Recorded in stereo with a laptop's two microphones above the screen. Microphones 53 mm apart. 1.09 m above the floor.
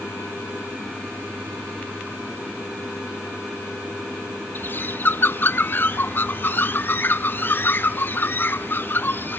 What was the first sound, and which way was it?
A bird, 40° left (ahead or behind).